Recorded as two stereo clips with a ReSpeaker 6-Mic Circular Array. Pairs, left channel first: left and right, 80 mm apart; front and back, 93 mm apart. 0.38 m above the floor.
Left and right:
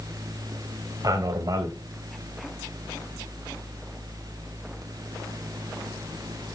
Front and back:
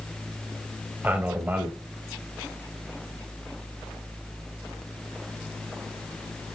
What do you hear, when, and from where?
1.0 s a man speaking: 110° right, 1.8 m